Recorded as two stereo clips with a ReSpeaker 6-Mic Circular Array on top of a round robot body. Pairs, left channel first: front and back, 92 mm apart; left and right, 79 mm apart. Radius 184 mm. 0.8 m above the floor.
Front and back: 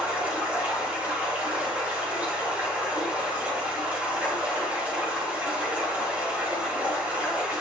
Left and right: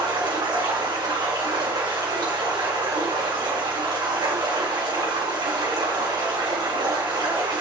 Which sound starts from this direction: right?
Running water, at 0.0 s.